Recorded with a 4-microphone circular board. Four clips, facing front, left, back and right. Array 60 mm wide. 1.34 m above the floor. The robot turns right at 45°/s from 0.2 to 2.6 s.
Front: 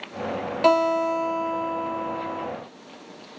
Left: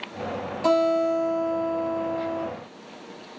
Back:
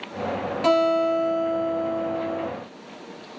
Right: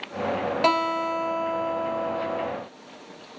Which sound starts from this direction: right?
A guitar, at 0.6 s.